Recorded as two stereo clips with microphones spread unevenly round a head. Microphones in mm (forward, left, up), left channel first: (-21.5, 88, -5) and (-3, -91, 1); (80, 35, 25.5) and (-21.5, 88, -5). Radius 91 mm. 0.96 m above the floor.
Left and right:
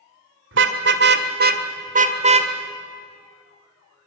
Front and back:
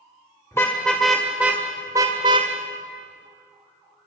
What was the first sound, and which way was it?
A car horn, 105° right.